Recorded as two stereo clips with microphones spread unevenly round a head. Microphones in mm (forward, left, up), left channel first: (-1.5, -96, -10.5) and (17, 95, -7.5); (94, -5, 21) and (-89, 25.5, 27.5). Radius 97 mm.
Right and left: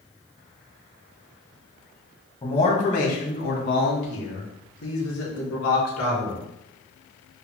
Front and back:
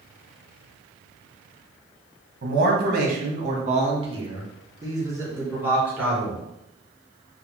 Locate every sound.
2.4 s a man speaking: 160° right, 2 m; by 6.4 s 105° right, 4 m